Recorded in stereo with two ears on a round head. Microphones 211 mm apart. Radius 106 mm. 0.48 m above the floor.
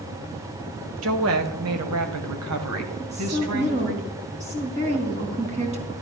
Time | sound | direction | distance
1.0 | a woman speaking | 60° right (ahead or behind) | 1.8 m
3.0 | a woman speaking | 30° right (ahead or behind) | 4 m